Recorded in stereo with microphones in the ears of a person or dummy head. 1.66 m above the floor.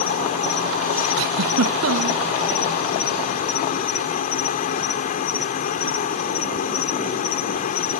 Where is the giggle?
65° right (ahead or behind).